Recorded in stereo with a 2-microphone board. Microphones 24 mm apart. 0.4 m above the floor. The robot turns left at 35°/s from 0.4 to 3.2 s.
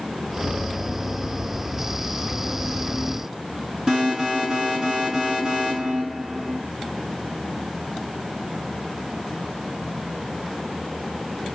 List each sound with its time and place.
3.9 s an alarm: 5° right (ahead or behind), 8 m